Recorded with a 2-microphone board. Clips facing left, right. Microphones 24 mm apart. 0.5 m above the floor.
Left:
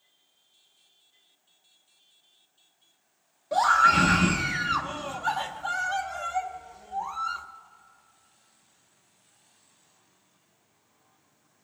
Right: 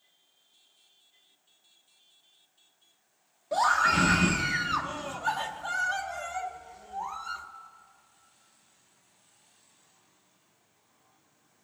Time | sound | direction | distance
3.5 | a scream | 5° left (ahead or behind) | 0.7 m